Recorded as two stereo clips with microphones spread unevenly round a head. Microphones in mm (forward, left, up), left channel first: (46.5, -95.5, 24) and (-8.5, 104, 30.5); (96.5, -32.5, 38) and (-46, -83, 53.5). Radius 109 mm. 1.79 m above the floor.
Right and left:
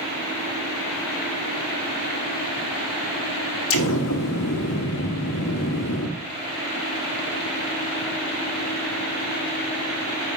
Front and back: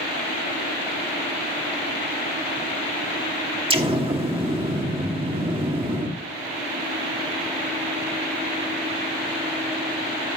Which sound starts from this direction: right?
An explosion, at 3.7 s.